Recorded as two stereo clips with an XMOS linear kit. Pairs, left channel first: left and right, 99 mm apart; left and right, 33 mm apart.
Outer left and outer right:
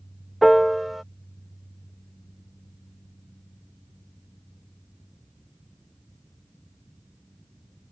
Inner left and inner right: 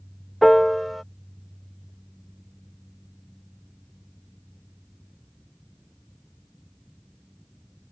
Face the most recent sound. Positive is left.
turn(degrees=0)  # may be behind; listen again after turning